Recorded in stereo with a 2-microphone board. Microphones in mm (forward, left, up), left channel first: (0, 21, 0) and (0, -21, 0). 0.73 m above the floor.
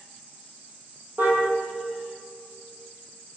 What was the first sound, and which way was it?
A car horn, 50° right (ahead or behind).